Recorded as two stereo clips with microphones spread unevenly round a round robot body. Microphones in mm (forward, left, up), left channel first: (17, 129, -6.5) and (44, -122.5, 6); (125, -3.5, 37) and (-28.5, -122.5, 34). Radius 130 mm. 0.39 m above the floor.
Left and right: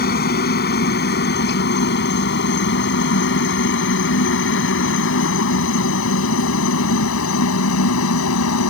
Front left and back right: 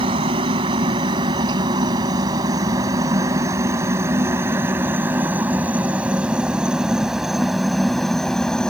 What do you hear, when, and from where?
0.0 s a helicopter: 150° left; by 8.7 s 125° left